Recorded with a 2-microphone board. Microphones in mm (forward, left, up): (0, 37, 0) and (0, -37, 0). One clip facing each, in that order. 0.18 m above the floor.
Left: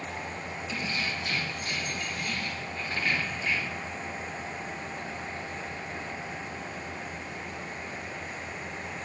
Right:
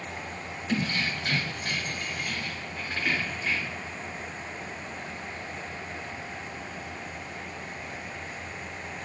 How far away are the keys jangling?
About 2 m.